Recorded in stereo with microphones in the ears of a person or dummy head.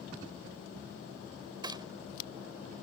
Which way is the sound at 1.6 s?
25° right (ahead or behind).